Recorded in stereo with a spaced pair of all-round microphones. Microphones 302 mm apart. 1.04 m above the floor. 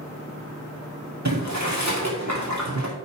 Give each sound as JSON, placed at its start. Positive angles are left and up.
{"t": 1.2, "sound": "boiling", "side_deg": -65, "distance_m": 2.5}